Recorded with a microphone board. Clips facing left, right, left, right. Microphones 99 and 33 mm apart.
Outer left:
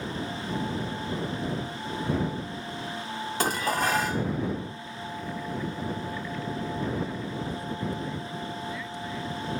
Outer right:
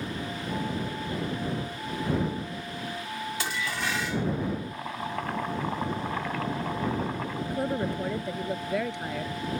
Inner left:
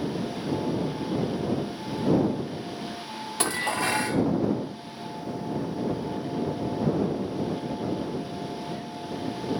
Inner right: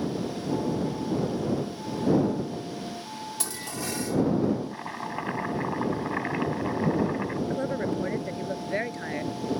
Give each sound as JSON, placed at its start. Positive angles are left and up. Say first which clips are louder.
{"t": 3.4, "sound": "dishes clattering", "louder": "outer left 8 dB, inner left 12 dB", "side_deg": 45}
{"t": 4.7, "sound": "chopping", "louder": "outer right 4 dB, inner right 4 dB", "side_deg": -75}
{"t": 7.5, "sound": "a woman speaking", "louder": "outer right 4 dB, inner right 2 dB", "side_deg": -65}